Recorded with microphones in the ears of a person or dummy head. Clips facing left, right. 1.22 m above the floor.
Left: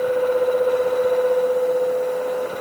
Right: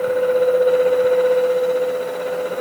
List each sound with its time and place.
Only background noise.